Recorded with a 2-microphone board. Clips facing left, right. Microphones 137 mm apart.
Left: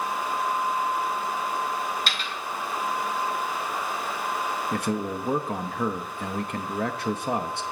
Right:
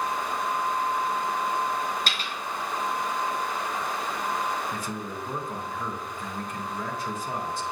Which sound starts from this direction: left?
A man speaking, at 4.7 s.